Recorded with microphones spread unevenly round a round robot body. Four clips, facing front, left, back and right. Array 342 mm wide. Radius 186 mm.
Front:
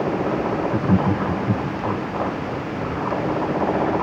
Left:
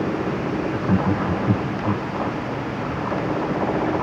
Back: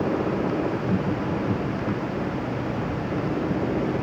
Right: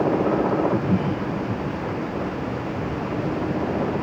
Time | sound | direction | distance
0.7 | laughter | 15° right | ?